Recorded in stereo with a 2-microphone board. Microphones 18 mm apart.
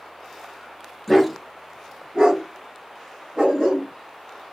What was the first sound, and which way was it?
A dog barking, 10° right (ahead or behind).